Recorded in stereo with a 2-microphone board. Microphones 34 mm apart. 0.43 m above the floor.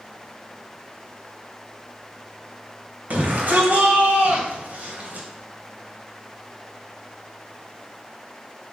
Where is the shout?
50° right (ahead or behind), 2 m.